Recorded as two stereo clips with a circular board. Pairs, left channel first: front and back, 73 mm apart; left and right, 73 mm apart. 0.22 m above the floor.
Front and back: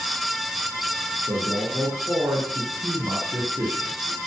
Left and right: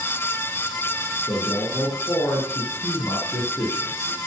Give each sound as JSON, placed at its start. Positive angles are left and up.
{"t": 1.3, "sound": "a man speaking", "azimuth_deg": 140, "distance_m": 3.5}